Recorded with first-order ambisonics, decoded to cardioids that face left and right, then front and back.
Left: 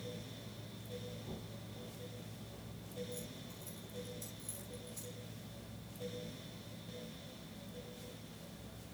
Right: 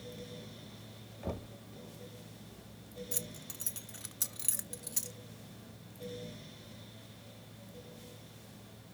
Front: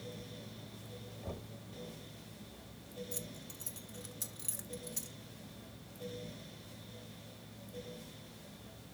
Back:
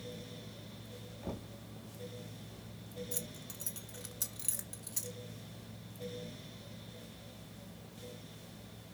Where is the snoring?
No snoring in this recording.